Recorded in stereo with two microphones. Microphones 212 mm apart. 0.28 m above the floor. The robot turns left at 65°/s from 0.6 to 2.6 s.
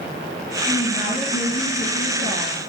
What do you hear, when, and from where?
0.7 s a woman speaking: 170° left, 6 m; by 2.6 s 45° left, 6 m